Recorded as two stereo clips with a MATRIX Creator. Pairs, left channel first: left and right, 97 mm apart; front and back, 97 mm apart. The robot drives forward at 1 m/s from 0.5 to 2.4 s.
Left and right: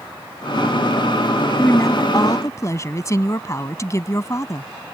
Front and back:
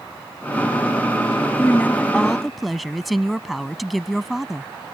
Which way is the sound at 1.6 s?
50° left.